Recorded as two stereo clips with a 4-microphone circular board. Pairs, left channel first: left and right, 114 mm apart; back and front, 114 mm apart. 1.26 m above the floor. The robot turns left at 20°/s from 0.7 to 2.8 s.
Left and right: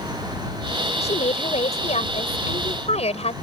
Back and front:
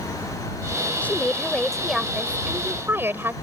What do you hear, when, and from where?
1.0 s a woman speaking: 105° left; by 3.3 s 70° left